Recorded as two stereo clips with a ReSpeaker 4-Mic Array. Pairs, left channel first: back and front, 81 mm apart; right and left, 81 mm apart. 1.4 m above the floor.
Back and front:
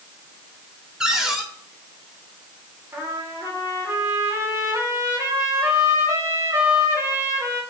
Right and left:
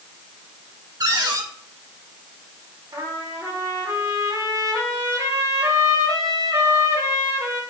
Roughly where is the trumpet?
Ahead left.